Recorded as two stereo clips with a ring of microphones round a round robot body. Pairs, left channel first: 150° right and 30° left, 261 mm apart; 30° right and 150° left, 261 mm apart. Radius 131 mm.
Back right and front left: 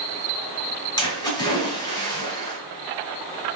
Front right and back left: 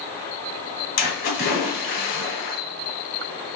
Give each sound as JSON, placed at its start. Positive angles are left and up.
{"t": 1.0, "sound": "a splash", "azimuth_deg": -80, "distance_m": 1.9}